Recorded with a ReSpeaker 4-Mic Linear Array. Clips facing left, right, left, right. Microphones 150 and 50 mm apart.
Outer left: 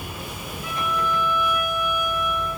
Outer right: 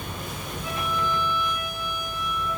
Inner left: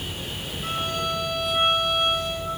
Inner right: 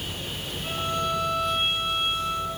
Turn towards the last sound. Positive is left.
turn(degrees=70)  # may be behind; listen again after turning